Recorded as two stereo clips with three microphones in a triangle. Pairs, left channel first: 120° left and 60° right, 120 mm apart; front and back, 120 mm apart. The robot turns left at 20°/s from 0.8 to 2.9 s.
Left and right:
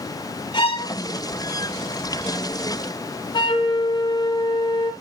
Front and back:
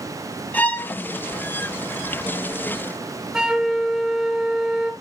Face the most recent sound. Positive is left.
turn(degrees=100)